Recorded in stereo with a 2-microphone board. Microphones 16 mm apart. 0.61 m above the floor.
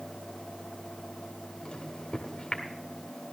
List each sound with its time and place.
1.6 s a microwave: 75° left (ahead or behind), 1.8 m